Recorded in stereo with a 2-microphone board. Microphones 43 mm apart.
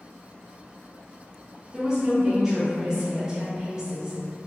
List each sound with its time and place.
1.7 s a woman speaking: 15° right (ahead or behind), 0.6 m